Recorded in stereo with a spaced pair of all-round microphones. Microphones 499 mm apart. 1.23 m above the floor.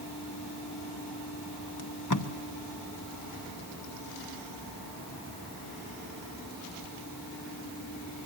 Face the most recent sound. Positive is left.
turn(degrees=35)  # may be behind; listen again after turning